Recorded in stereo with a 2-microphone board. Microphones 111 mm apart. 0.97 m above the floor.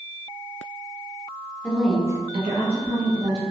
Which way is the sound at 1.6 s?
15° left (ahead or behind).